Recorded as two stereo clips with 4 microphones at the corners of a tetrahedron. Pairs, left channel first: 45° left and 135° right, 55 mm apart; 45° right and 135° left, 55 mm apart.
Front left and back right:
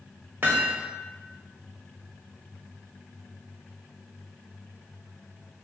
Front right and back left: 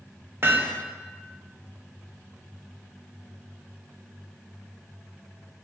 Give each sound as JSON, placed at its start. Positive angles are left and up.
{"t": 0.4, "sound": "hammering", "azimuth_deg": 175, "distance_m": 0.9}